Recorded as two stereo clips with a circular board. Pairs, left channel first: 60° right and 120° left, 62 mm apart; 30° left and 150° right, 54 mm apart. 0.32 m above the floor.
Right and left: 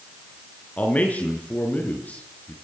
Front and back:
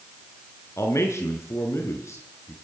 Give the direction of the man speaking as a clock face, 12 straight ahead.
12 o'clock.